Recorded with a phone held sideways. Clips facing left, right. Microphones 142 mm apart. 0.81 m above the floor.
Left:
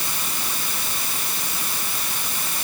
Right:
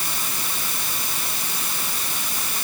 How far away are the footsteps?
No footsteps in this recording.